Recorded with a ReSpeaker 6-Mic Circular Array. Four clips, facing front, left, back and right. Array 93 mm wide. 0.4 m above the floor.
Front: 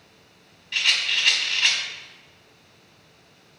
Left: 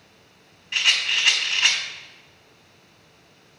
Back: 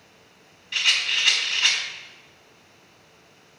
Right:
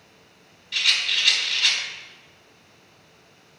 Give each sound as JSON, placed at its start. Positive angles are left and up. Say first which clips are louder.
{"t": 0.7, "sound": "a rattle", "louder": "left 2 dB, even", "azimuth_deg": 90, "distance_m": 1.4}